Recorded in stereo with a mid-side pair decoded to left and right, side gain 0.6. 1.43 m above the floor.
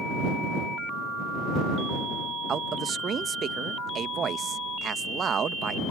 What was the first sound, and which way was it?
A man speaking, 40° right.